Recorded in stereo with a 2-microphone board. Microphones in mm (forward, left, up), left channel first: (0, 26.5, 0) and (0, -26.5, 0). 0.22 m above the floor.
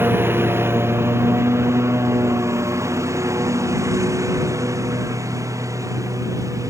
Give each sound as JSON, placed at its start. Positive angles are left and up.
{"t": 0.0, "sound": "a lawn mower", "side_deg": -45}